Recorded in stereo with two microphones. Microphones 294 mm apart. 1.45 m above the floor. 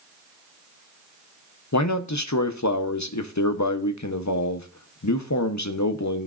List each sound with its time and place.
1.7 s a man speaking: 70° left (ahead or behind), 0.7 m